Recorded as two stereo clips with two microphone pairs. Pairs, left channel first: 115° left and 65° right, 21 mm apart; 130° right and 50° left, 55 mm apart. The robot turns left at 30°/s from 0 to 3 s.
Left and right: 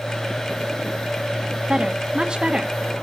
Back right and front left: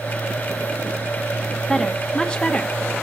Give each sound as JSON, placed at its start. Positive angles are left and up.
{"t": 1.7, "sound": "a woman speaking", "azimuth_deg": -55, "distance_m": 1.1}